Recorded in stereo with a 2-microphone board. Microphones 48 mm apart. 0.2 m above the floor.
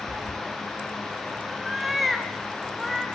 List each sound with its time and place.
0.1 s a cat meowing: 55° right (ahead or behind), 0.5 m; by 3.0 s centre (ahead or behind), 4 m